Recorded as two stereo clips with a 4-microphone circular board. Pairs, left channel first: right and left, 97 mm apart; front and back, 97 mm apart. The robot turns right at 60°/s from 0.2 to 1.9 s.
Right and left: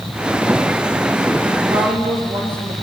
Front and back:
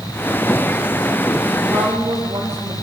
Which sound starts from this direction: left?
A woman speaking, at 1.7 s.